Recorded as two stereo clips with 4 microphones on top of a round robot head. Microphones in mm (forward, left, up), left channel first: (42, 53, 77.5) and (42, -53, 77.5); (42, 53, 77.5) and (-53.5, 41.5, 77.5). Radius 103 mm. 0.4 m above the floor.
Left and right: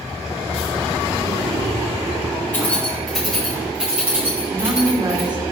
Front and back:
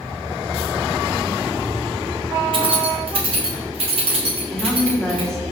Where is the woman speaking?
75° right, 1.8 m.